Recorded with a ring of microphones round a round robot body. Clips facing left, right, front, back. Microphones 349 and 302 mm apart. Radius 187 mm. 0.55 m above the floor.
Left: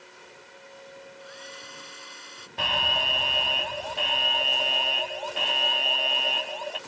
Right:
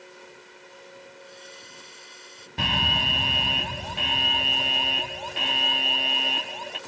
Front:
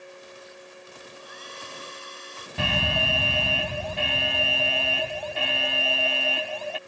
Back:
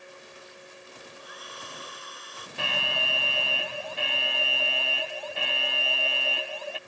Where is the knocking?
No knocking in this recording.